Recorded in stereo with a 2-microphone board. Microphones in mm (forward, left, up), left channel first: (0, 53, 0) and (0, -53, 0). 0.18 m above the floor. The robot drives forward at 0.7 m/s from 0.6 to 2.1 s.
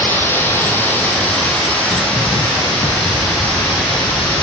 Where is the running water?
20° left (ahead or behind), 2 m; by 4.4 s 15° left (ahead or behind), 3 m.